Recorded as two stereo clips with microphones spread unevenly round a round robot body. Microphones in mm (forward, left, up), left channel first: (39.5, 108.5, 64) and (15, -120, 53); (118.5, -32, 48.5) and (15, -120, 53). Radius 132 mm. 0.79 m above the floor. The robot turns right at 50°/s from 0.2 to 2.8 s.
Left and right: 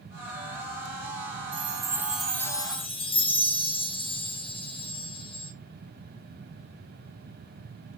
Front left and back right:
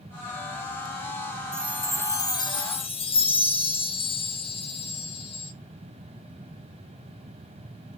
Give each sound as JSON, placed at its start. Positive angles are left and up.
{"t": 1.5, "sound": "a chime", "azimuth_deg": -45, "distance_m": 0.5}